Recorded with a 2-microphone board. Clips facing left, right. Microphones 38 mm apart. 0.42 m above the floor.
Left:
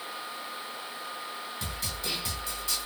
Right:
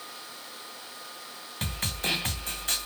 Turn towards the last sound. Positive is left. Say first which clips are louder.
# right 7 dB
turn(degrees=-55)  # may be behind; listen again after turning